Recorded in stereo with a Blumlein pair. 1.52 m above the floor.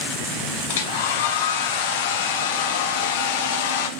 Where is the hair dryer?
50° left, 1.5 m.